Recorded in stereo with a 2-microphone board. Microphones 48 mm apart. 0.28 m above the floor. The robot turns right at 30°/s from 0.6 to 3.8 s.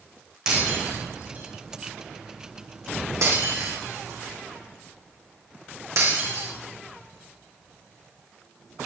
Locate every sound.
0.5 s breaking glass: 15° right (ahead or behind), 8 m; by 6.5 s 70° right (ahead or behind), 8 m